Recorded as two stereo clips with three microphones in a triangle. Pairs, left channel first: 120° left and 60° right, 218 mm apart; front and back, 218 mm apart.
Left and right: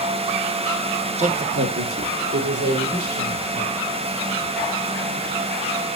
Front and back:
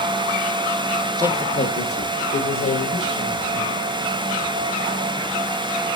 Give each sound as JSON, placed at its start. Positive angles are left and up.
{"t": 1.2, "sound": "a man speaking", "azimuth_deg": -110, "distance_m": 0.8}